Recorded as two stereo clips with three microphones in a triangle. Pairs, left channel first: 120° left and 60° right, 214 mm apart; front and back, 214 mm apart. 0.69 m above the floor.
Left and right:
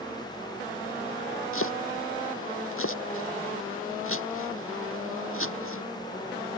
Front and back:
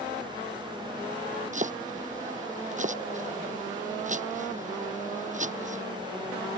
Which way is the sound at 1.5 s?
125° left.